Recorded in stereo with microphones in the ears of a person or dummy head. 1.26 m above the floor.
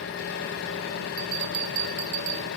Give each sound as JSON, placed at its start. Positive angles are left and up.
{"t": 0.0, "sound": "an engine running", "side_deg": 55, "distance_m": 2.0}
{"t": 1.2, "sound": "a bell", "side_deg": -45, "distance_m": 0.6}